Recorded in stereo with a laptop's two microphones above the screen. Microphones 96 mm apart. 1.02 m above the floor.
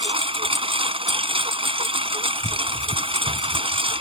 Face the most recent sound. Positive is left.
turn(degrees=-80)